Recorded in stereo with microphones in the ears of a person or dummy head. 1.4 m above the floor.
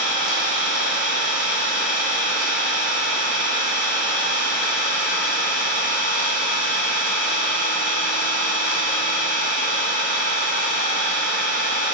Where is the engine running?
55° left (ahead or behind), 1.5 m.